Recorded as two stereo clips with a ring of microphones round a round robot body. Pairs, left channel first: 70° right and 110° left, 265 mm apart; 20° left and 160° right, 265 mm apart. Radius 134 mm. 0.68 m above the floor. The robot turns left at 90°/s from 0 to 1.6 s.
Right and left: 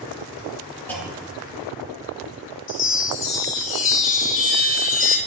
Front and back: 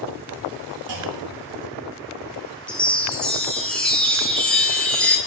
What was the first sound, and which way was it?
A clunk, 150° right.